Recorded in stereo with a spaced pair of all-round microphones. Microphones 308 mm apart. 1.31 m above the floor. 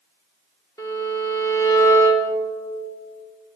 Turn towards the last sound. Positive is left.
turn(degrees=10)  # may be behind; listen again after turning